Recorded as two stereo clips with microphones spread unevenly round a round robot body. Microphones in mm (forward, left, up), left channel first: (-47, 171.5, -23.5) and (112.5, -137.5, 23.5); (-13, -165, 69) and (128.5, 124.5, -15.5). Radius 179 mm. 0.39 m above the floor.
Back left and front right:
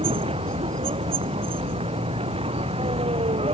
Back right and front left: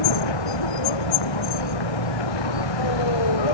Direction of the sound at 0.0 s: 140° right.